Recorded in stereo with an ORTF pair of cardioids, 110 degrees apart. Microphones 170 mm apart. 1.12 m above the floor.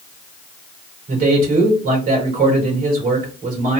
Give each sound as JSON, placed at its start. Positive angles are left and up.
{"t": 1.1, "sound": "a man speaking", "azimuth_deg": -55, "distance_m": 3.0}